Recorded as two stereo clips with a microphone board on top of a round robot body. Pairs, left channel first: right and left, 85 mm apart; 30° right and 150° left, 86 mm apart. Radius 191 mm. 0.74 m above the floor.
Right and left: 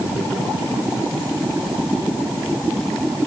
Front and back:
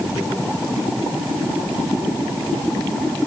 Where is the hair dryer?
I don't hear a hair dryer.